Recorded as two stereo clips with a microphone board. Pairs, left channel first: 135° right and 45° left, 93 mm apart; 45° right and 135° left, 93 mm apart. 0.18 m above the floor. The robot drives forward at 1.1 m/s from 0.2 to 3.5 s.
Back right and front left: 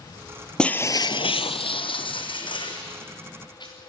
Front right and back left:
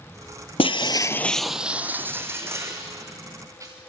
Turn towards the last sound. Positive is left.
turn(degrees=-170)